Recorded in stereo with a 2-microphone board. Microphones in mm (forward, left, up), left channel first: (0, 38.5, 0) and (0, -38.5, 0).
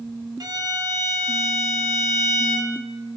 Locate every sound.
0.4 s a violin: 60° right (ahead or behind), 0.7 m